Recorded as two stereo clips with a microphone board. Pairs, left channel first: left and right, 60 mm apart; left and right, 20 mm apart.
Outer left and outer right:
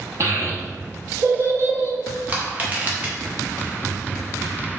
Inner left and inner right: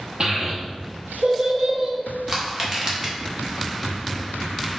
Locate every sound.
0.2 s a child speaking: 50° right (ahead or behind), 1.0 m
2.3 s crushing: 25° right (ahead or behind), 1.1 m